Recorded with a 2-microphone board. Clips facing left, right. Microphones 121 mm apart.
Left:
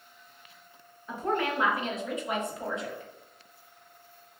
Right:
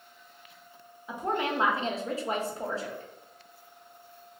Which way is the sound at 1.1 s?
10° right (ahead or behind).